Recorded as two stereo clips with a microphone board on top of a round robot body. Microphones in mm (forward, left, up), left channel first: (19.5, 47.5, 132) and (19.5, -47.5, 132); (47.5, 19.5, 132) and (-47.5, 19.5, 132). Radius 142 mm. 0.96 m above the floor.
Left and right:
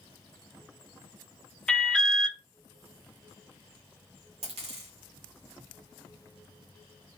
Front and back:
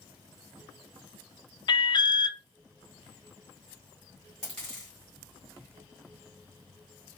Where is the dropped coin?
80° right, 1.2 m.